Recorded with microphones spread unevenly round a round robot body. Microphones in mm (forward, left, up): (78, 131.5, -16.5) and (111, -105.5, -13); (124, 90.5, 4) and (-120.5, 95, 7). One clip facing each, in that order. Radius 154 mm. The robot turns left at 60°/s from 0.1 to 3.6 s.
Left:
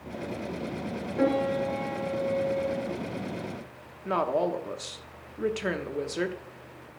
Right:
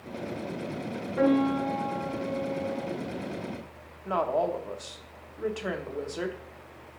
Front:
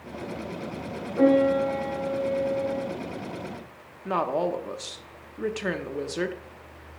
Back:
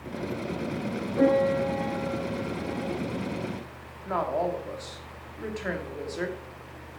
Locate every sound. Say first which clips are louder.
1.2 s a piano: right 3 dB, front 3 dB; 75° right, 3.5 m; by 2.8 s 175° right, 3.5 m
4.0 s a woman speaking: left 1 dB, front 2 dB; 40° left, 0.9 m